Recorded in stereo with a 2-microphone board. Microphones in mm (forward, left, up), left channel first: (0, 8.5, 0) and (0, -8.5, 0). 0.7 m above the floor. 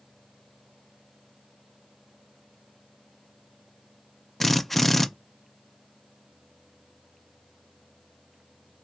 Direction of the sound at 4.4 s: 20° left (ahead or behind).